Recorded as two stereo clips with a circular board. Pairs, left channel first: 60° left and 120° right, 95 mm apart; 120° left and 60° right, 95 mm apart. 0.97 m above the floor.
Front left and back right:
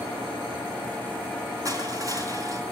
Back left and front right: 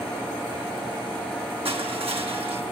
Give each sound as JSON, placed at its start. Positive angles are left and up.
{"t": 1.6, "sound": "crushing", "azimuth_deg": -70, "distance_m": 3.5}